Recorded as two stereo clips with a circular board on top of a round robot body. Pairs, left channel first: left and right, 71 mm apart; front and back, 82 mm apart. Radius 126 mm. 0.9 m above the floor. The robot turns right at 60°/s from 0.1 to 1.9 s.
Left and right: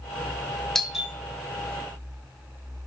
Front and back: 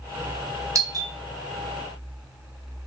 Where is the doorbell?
175° left, 0.9 m; by 1.1 s 165° right, 0.9 m.